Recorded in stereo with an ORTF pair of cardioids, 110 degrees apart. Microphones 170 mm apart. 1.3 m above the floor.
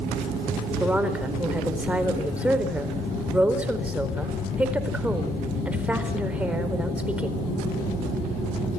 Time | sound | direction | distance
0.8 | a woman speaking | 5° right | 4 m